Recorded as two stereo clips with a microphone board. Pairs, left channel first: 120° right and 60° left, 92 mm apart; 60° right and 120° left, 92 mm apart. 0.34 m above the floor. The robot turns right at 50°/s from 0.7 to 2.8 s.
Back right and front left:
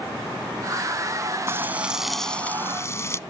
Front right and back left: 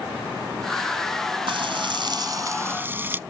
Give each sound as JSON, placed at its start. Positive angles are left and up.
{"t": 1.5, "sound": "frying", "azimuth_deg": 120}